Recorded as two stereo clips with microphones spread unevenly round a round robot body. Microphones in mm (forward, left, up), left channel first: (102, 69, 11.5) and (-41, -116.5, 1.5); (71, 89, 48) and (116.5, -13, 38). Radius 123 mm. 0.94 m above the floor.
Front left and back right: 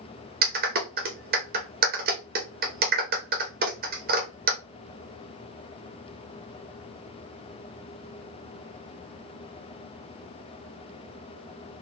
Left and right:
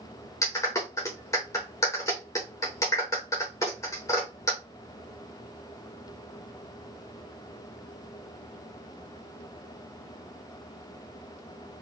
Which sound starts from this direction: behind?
A clap, at 0.4 s.